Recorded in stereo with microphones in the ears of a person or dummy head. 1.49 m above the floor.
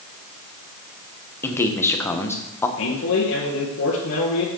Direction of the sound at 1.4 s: 15° left (ahead or behind).